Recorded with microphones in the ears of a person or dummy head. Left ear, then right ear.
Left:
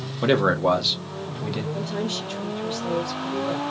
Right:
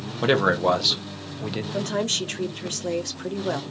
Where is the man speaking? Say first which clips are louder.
Even; 10° right (ahead or behind), 0.8 m.